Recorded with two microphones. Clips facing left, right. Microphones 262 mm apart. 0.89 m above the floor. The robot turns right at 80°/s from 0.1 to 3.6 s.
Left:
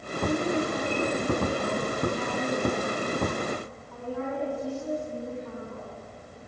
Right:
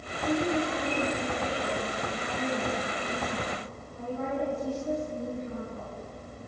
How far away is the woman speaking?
About 7.5 m.